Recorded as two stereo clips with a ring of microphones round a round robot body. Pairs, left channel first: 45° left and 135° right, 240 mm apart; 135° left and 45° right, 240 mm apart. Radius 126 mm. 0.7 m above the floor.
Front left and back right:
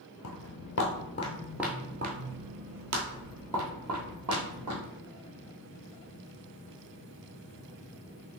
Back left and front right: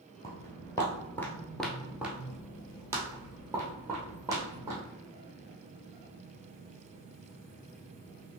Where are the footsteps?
60° left, 1.1 m; by 4.8 s 120° right, 2.5 m.